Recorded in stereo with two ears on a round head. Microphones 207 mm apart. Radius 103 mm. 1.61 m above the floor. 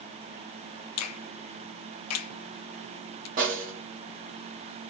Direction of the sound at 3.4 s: 35° right (ahead or behind).